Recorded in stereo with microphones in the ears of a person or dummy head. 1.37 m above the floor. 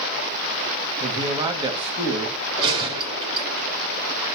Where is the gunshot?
30° right (ahead or behind), 3.5 m.